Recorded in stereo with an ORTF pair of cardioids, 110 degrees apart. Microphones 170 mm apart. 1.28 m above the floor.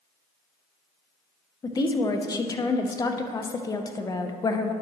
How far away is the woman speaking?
About 0.8 m.